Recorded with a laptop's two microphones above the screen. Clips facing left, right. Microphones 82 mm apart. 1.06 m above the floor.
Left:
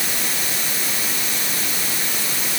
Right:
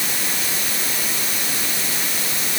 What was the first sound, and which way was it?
Only background noise.